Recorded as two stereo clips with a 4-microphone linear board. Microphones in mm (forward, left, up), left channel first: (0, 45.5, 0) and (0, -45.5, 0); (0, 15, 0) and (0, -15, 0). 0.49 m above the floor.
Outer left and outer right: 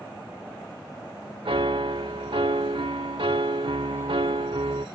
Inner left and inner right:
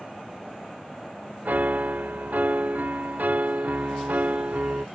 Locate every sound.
1.4 s a piano: 70° right (ahead or behind)